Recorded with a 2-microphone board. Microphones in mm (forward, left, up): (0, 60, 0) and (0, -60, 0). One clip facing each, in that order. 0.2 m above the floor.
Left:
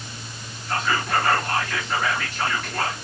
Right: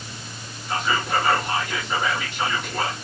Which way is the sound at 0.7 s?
10° right (ahead or behind).